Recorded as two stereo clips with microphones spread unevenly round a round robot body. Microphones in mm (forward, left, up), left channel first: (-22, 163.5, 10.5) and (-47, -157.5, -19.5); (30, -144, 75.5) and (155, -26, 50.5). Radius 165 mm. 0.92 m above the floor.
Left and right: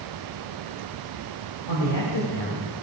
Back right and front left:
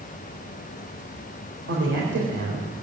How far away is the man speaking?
About 3.5 m.